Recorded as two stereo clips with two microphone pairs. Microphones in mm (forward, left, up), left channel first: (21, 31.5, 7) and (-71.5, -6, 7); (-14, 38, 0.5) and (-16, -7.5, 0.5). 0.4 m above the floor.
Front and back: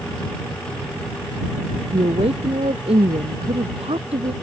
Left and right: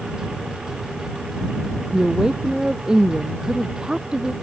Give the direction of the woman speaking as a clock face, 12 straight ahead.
6 o'clock.